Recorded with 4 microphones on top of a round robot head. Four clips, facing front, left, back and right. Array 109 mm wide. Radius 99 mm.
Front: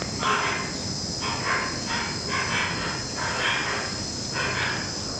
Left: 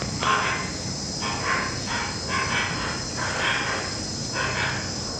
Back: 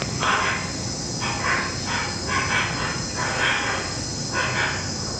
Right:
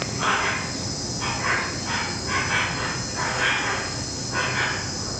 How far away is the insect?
About 5 m.